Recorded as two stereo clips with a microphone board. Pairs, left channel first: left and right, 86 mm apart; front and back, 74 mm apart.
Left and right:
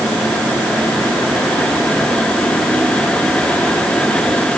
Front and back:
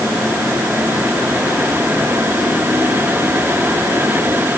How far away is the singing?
No singing in this recording.